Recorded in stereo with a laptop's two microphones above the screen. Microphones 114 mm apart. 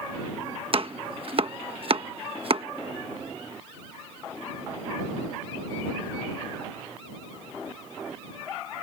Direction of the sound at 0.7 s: 50° right (ahead or behind).